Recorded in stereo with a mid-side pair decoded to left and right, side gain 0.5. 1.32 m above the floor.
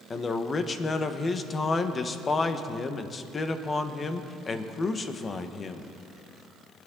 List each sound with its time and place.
0.1 s a man speaking: 35° left, 1.3 m